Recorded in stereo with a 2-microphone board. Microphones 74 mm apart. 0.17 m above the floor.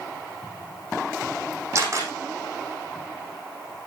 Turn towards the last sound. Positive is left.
turn(degrees=-40)  # may be behind; listen again after turning